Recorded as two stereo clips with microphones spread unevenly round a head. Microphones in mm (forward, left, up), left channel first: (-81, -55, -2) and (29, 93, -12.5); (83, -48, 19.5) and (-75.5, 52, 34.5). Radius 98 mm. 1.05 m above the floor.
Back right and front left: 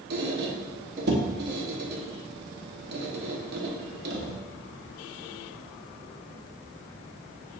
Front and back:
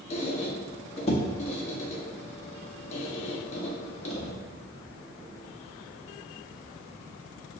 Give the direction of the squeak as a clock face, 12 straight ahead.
11 o'clock.